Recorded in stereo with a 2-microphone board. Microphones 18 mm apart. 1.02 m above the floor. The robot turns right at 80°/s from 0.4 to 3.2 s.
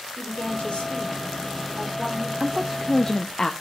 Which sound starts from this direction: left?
A woman speaking, at 0.2 s.